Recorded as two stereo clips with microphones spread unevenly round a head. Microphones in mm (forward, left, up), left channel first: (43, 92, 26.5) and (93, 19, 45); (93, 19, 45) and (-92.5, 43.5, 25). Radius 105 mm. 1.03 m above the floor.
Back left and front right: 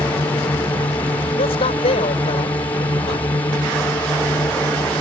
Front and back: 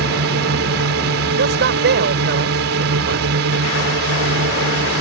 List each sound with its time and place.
0.0 s a drone: 165° right
1.4 s a man speaking: 145° left